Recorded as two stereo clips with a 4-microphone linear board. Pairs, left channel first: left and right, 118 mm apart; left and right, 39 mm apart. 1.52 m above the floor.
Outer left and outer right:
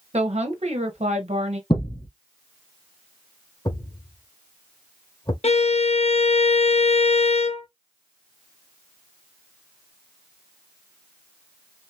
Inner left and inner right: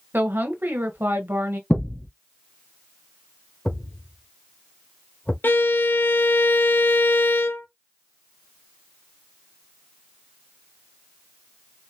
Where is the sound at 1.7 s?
45° left (ahead or behind), 2.5 m.